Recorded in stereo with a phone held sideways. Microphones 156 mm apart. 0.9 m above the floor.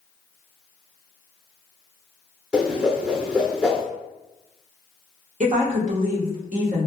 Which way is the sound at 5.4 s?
60° right (ahead or behind).